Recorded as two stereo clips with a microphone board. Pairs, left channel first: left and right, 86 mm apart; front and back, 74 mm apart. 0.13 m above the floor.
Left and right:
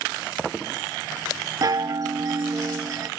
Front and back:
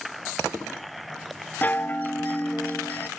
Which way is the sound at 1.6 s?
60° right.